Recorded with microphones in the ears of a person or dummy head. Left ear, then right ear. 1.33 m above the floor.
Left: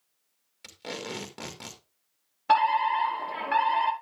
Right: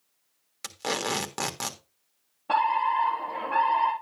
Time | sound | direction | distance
0.6 | tape being pulled | 45° right (ahead or behind) | 1.6 m
2.5 | a fire alarm | 60° left (ahead or behind) | 4.5 m